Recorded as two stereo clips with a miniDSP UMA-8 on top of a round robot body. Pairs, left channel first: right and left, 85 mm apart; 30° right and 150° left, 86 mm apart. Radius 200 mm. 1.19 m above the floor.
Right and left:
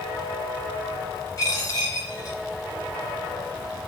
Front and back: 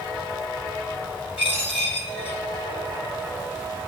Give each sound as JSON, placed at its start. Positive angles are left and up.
{"t": 1.4, "sound": "a dropped coin", "azimuth_deg": -35, "distance_m": 0.6}